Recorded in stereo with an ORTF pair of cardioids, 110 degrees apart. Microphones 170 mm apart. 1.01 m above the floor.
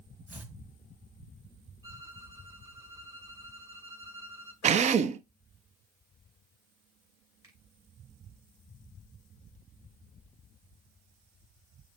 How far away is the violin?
About 5.5 m.